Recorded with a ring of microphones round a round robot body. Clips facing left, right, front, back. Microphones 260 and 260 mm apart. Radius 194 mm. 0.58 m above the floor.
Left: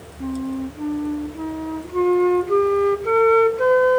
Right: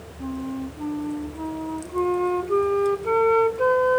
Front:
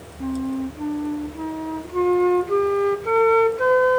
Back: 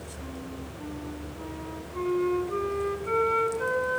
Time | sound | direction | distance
0.2 | a flute | 25° left | 2 m